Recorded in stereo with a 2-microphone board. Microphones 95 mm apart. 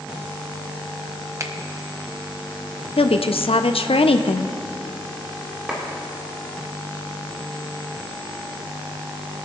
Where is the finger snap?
35° right (ahead or behind), 0.9 m.